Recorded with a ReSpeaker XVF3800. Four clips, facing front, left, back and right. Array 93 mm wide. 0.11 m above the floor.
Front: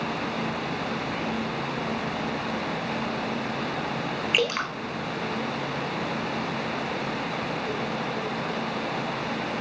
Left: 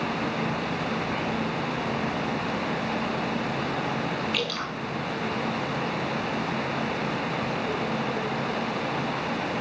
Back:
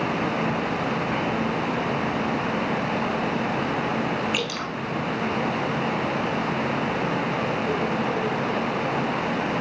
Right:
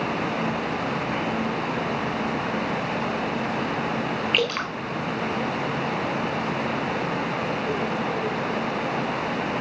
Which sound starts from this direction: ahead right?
Dripping, at 4.3 s.